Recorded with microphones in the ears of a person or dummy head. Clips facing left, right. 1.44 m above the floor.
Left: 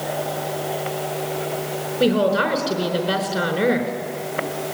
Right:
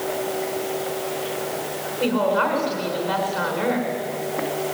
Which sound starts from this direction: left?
A woman speaking, at 2.0 s.